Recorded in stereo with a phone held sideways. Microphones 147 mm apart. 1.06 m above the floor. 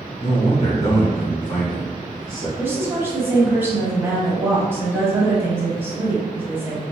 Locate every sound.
0.2 s a man speaking: 30° left (ahead or behind), 1.2 m; by 2.5 s 65° left (ahead or behind), 1.3 m
2.6 s a woman speaking: 15° right (ahead or behind), 1.1 m